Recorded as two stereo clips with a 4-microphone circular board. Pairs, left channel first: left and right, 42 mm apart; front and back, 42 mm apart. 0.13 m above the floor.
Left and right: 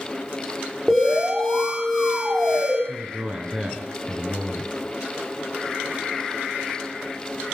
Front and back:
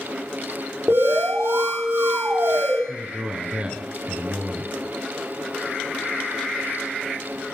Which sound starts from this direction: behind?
An alarm, at 0.9 s.